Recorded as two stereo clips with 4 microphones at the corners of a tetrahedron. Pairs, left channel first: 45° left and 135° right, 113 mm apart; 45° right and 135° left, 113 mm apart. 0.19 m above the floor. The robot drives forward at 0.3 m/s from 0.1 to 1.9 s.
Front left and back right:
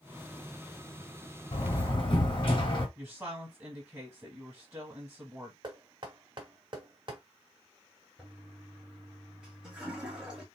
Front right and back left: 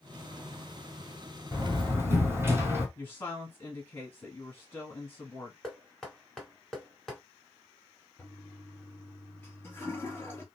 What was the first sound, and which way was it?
A door slam, 70° left.